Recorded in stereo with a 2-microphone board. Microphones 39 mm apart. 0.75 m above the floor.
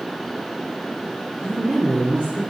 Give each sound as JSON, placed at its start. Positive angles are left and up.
{"t": 1.4, "sound": "a woman speaking", "side_deg": -30, "distance_m": 2.0}